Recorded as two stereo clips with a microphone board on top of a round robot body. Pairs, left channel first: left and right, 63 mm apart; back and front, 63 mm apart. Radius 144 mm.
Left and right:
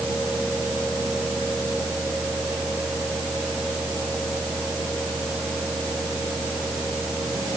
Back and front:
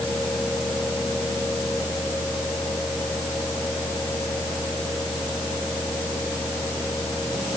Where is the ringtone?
No ringtone in this recording.